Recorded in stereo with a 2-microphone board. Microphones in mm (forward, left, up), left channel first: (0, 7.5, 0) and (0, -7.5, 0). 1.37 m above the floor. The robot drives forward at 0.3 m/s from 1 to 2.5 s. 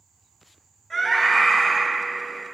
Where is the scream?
30° left (ahead or behind), 2.5 m.